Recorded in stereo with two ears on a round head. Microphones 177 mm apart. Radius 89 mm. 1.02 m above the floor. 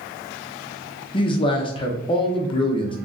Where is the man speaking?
25° left (ahead or behind), 0.6 m.